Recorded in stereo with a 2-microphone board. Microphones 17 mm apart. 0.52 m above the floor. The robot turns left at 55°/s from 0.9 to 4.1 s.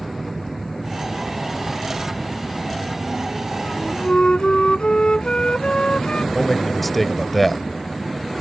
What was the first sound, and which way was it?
A flute, 35° left (ahead or behind).